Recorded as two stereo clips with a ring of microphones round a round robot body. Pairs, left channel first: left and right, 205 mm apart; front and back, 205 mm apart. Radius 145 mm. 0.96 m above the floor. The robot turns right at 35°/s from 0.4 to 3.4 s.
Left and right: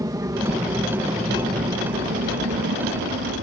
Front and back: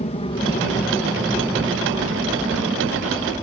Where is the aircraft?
30° right; by 3.4 s 75° right.